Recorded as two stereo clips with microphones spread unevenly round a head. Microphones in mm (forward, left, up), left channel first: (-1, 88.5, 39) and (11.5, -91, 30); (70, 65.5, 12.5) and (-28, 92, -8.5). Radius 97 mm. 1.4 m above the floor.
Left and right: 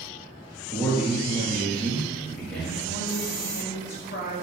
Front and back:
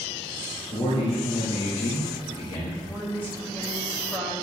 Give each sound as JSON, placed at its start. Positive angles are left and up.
{"t": 0.7, "sound": "a man speaking", "azimuth_deg": 10, "distance_m": 1.7}
{"t": 2.9, "sound": "a woman speaking", "azimuth_deg": 60, "distance_m": 3.5}